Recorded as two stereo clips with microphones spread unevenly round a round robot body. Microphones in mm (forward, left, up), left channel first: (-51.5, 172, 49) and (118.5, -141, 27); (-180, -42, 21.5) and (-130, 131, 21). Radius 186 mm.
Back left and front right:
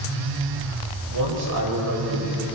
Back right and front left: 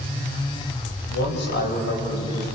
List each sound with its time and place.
1.1 s a man speaking: 105° right, 6 m; by 2.5 s 110° right, 5.5 m